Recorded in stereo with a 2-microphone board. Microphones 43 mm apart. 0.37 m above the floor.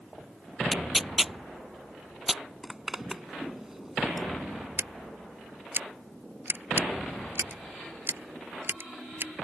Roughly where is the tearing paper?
Centre.